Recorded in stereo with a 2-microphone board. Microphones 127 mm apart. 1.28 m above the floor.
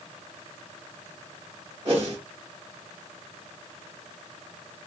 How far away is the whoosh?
About 1.9 m.